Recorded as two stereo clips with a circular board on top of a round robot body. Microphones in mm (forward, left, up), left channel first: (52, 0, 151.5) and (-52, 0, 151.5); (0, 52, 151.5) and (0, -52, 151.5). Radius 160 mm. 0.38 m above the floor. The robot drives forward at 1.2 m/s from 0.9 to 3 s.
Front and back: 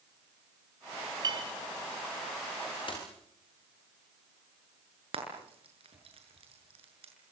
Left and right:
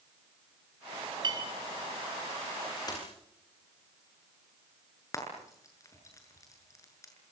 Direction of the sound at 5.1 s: 150° left.